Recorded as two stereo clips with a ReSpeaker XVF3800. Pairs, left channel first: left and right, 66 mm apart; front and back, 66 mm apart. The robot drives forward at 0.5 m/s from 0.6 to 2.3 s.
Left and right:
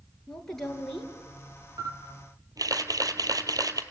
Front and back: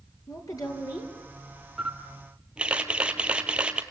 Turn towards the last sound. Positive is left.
turn(degrees=-105)